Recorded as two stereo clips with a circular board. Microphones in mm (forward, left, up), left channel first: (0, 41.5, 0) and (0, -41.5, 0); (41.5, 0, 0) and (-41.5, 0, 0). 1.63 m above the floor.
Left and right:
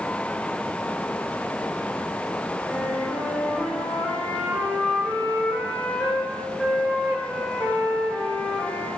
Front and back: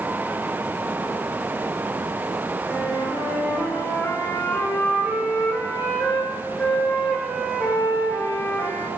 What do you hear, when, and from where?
2.7 s a flute: 30° right, 0.9 m